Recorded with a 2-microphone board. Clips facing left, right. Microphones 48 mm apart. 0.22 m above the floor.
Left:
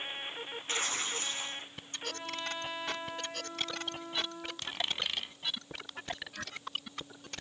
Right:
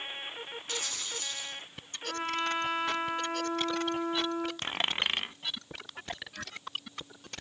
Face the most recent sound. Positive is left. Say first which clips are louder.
# even
turn(degrees=-40)  # may be behind; listen again after turning